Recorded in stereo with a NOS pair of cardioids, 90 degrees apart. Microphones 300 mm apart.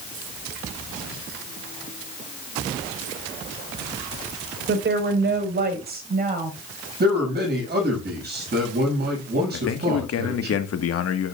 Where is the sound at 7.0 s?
35° right, 7.5 m.